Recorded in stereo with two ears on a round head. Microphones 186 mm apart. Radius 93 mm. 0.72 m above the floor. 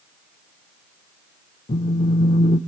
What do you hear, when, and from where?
1.7 s a phone buzzing: 30° left (ahead or behind), 0.7 m